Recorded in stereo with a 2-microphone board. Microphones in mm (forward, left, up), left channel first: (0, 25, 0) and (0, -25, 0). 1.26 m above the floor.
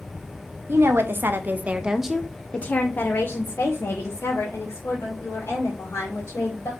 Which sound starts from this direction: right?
A woman speaking, at 0.7 s.